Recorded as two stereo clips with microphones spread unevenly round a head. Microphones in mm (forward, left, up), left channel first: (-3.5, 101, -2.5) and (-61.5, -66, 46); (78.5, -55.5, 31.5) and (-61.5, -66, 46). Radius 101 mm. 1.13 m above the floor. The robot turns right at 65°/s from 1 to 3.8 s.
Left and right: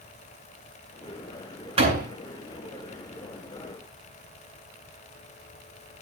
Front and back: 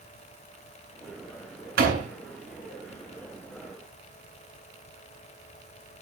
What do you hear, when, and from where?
1.8 s a door slam: 165° right, 9 m; by 2.1 s 145° right, 9 m